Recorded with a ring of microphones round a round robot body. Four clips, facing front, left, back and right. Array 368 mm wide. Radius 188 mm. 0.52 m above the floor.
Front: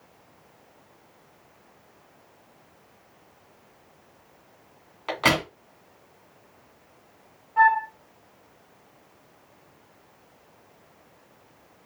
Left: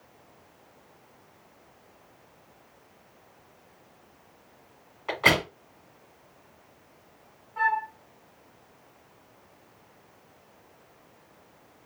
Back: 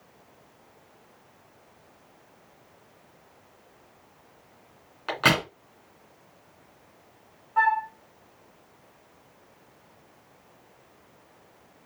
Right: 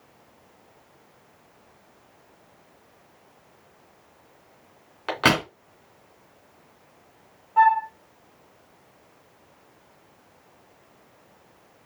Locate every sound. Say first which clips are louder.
5.1 s a crack: right 3 dB, even; 95° right, 3 m
7.6 s a flute: right 9 dB, front 4 dB; 110° right, 1.2 m